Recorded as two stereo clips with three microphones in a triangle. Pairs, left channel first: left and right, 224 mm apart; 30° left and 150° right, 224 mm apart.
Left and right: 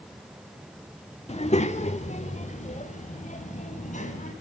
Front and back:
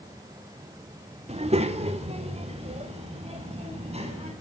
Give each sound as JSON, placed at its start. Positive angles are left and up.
{"t": 1.3, "sound": "a child speaking", "azimuth_deg": 150, "distance_m": 1.5}